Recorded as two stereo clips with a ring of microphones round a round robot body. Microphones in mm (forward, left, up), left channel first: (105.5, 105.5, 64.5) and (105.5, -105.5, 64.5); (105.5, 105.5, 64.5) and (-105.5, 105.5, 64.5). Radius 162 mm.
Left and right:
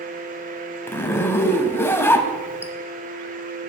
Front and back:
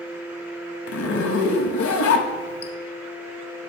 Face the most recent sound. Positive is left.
turn(degrees=10)